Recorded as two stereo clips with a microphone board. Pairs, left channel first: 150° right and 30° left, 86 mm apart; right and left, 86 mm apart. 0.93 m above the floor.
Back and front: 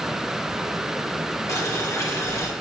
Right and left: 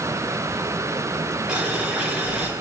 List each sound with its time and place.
1.5 s boiling: 165° left, 1.1 m